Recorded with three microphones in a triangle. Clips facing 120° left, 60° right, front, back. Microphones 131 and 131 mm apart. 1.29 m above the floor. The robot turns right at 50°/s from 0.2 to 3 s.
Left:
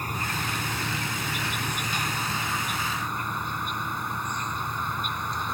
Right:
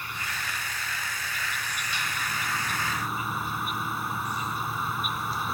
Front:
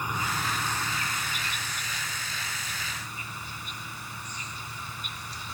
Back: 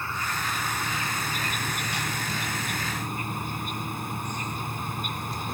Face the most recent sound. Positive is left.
turn(degrees=-145)